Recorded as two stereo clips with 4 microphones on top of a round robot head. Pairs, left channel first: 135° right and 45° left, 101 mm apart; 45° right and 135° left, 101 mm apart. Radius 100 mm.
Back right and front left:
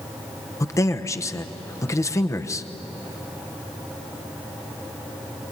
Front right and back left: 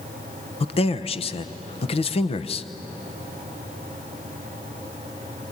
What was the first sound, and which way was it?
A man speaking, 70° right.